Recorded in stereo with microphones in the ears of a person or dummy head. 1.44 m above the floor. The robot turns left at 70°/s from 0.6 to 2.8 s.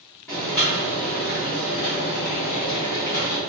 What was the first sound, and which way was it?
Boiling, 175° left.